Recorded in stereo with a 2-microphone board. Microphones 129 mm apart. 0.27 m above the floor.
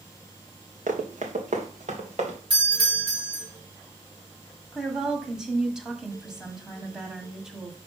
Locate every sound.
0.9 s running footsteps: 80° right, 2 m; by 2.4 s 55° right (ahead or behind), 2.5 m
2.5 s a doorbell: 40° right (ahead or behind), 4 m
4.7 s a woman speaking: 5° right (ahead or behind), 1.7 m